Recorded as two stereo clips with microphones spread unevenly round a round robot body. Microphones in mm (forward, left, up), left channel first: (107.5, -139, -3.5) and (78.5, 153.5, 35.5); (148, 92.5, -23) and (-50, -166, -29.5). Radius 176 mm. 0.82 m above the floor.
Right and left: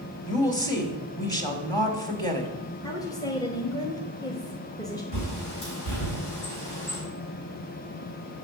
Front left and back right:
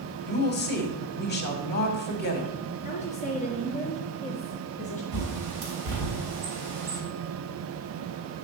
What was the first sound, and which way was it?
A woman speaking, 5° right.